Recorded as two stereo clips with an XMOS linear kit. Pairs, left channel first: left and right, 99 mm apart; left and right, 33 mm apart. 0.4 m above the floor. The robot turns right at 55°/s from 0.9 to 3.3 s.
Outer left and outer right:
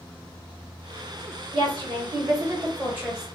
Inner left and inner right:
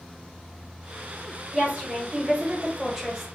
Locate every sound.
1.5 s a woman speaking: 100° right, 1.5 m; by 3.3 s 5° right, 1.5 m